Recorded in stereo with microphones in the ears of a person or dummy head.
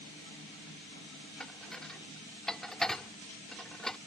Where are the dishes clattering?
5° left (ahead or behind).